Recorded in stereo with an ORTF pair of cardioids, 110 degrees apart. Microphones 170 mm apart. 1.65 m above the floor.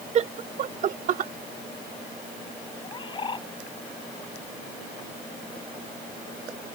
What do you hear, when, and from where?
0.1 s laughter: 40° right; by 1.3 s 50° right
2.8 s a bird: 30° left